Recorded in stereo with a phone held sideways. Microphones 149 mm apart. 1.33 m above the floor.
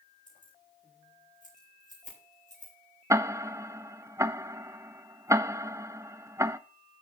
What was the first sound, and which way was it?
Keys jangling, 60° left (ahead or behind).